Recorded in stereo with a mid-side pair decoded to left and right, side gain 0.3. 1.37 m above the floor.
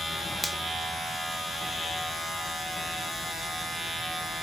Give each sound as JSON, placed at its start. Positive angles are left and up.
{"t": 0.4, "sound": "a finger snap", "azimuth_deg": -5, "distance_m": 0.6}